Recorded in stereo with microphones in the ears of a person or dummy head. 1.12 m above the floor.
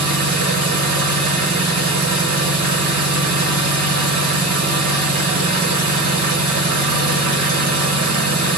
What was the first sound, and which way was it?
An engine running, 50° right (ahead or behind).